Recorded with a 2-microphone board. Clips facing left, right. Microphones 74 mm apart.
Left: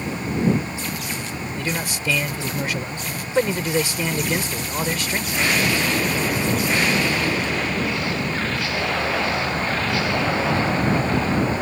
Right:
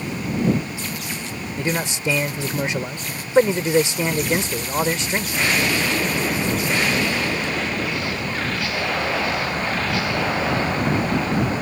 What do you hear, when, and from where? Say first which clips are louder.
1.6 s a man speaking: right 4 dB; 25° right (ahead or behind)